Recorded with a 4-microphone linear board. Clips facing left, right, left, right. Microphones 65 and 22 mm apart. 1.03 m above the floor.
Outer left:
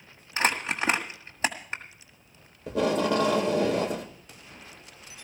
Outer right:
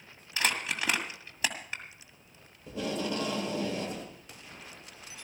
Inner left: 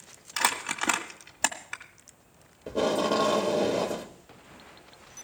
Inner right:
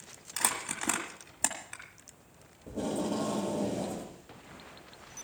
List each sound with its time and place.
0.4 s crumpling: 30° left (ahead or behind), 1.7 m
2.7 s tape being pulled: 75° left (ahead or behind), 1.6 m